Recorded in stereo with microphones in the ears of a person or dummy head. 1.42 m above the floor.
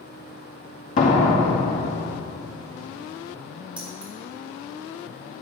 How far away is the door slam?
About 2 m.